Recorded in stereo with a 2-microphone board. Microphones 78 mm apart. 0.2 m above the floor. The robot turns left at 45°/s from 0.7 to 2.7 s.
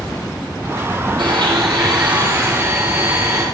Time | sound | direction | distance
1.2 | a blender | 80° right | 4 m